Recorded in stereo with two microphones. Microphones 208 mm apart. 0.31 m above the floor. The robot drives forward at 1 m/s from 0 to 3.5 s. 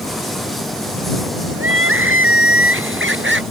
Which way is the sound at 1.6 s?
75° right (ahead or behind).